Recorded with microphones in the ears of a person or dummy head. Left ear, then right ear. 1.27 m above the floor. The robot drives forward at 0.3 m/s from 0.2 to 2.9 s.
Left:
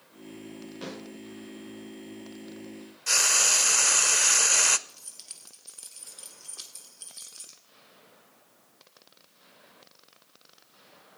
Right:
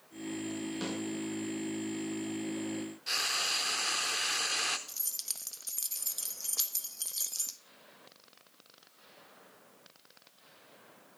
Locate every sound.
0.8 s a snare drum: 75° right (ahead or behind), 8 m
3.1 s frying: 25° left (ahead or behind), 0.5 m
4.9 s keys jangling: 75° right (ahead or behind), 1.1 m